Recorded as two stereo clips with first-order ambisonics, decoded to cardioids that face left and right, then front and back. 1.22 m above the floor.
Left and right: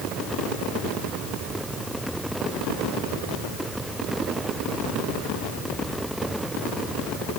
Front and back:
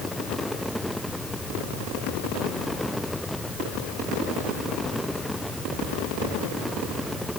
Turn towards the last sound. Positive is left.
No sound to turn to.